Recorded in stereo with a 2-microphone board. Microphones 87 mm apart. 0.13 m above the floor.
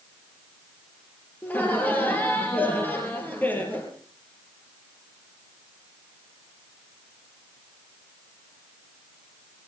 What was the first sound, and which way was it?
Laughter, 20° left (ahead or behind).